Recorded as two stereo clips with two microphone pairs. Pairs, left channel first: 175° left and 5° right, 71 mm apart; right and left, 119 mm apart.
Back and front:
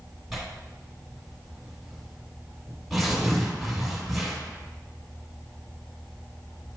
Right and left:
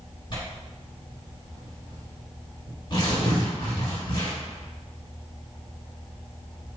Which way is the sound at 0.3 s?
90° right.